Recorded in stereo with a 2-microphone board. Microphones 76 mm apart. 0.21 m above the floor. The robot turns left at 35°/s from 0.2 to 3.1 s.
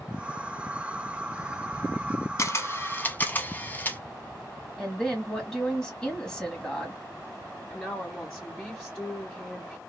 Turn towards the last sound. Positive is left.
turn(degrees=10)  # may be behind; listen again after turning